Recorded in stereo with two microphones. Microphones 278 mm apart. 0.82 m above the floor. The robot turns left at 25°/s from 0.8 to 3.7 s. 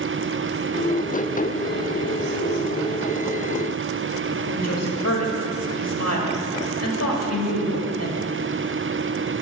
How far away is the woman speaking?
About 1.4 m.